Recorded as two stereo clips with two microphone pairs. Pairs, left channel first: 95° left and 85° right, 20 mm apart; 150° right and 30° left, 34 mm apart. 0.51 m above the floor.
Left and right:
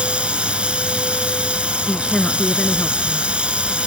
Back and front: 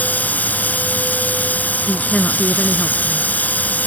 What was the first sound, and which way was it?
Running water, 115° right.